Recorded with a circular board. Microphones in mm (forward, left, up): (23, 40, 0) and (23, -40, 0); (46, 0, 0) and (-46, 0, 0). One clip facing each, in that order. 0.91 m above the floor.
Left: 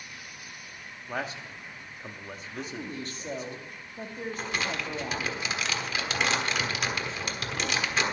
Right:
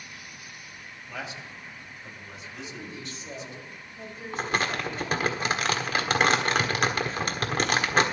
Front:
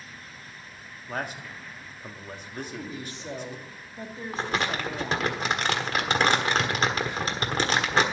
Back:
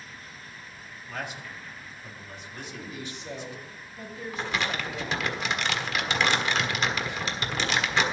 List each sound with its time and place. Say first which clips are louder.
1.1 s a man speaking: left 4 dB, front 3 dB; 45° left, 1.5 m
2.5 s a woman speaking: left 4 dB, front 3 dB; 55° left, 2 m
4.3 s crumpling: right 6 dB, front 2 dB; 50° right, 1.4 m